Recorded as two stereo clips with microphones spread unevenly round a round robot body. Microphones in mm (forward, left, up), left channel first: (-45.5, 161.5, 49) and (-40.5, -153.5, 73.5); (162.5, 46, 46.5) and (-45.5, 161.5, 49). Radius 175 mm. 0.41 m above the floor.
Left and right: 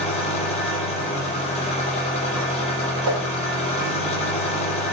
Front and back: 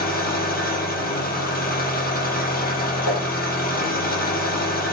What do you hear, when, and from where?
0.0 s an engine running: 20° left, 4.5 m
3.0 s a whoosh: 50° right, 4 m